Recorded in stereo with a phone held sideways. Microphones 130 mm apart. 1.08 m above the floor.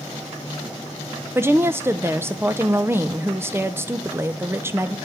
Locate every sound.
1.4 s a woman speaking: 20° right (ahead or behind), 0.5 m